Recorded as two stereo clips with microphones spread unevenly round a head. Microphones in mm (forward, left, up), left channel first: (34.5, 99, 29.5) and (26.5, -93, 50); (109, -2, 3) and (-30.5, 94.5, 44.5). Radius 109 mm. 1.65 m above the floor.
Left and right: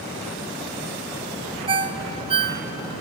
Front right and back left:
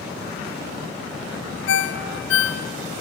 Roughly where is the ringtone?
Ahead right.